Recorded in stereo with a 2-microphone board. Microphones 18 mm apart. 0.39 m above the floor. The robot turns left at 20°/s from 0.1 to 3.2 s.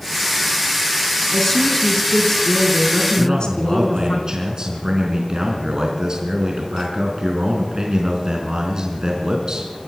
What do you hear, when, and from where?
1.3 s a woman speaking: 165° left, 3.5 m; by 4.2 s 130° left, 3.5 m
3.2 s a man speaking: 40° right (ahead or behind), 4 m